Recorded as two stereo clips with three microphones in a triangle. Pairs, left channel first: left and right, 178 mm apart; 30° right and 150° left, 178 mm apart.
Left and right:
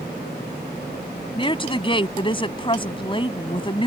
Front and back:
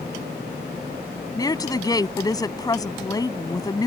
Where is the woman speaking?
35° left.